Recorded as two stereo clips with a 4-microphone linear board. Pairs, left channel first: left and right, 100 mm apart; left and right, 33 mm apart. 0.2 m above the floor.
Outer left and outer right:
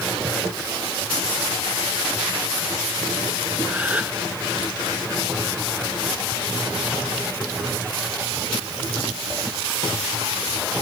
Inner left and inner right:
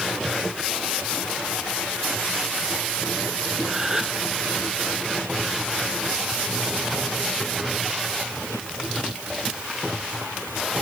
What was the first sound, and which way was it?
A gasp, 15° right (ahead or behind).